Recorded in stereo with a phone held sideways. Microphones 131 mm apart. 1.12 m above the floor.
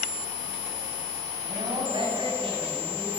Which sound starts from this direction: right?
A woman speaking, at 1.4 s.